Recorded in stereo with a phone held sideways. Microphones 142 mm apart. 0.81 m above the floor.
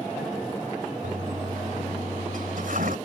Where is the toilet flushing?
80° right.